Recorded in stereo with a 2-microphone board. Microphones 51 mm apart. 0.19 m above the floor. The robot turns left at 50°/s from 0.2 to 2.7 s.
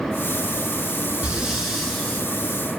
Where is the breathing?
155° right, 1.2 m; by 2.3 s 155° left, 1.2 m.